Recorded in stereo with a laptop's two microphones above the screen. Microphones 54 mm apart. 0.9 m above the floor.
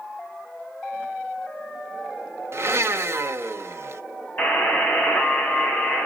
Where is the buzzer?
35° left (ahead or behind), 2.5 m.